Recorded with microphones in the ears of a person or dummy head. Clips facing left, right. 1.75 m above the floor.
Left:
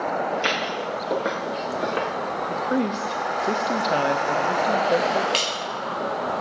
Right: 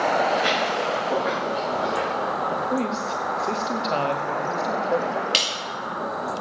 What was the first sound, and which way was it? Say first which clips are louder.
Footsteps: right 3 dB; 40° left (ahead or behind).